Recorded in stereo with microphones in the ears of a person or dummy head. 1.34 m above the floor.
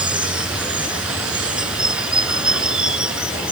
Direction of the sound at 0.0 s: 5° right (ahead or behind).